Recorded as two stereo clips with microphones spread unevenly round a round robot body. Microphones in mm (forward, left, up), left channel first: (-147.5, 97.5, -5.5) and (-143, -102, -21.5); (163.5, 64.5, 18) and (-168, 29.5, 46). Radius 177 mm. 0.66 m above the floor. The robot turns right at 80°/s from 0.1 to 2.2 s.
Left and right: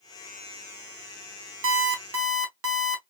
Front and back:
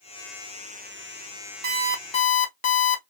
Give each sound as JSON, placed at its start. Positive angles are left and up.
{"t": 1.6, "sound": "an alarm clock", "azimuth_deg": -110, "distance_m": 0.7}